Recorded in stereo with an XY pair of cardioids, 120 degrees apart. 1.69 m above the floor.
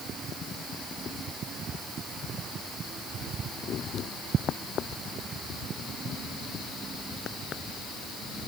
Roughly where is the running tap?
I don't hear a running tap.